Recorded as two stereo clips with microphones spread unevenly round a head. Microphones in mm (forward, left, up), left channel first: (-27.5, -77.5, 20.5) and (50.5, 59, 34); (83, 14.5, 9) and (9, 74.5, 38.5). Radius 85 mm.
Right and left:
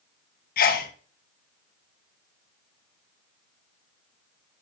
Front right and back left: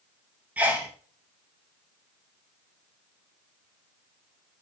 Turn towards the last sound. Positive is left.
turn(degrees=-135)